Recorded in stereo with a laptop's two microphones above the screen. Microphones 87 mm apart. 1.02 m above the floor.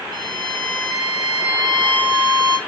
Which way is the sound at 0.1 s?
60° right (ahead or behind).